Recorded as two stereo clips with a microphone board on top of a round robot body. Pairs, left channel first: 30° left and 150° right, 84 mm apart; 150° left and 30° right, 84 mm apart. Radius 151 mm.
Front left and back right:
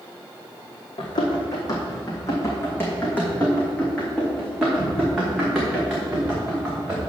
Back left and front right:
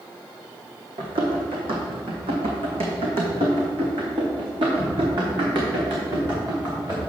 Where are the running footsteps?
5° right, 1.9 m; by 7.0 s 75° right, 3.5 m.